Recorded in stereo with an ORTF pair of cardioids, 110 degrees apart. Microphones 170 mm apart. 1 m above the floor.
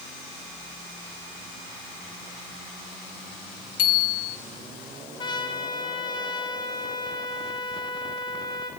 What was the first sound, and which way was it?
A bicycle bell, 55° left.